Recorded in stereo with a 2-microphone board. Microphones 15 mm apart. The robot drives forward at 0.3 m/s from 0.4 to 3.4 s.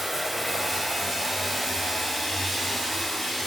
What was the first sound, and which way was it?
Running water, 15° right (ahead or behind).